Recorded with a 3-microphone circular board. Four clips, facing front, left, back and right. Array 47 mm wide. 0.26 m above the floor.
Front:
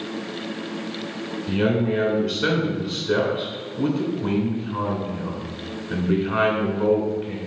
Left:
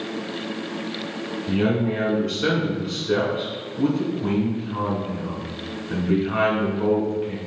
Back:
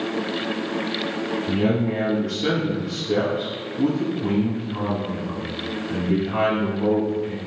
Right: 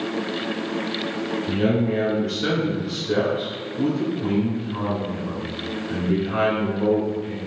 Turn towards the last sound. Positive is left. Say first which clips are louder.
# even, front 2 dB
turn(degrees=25)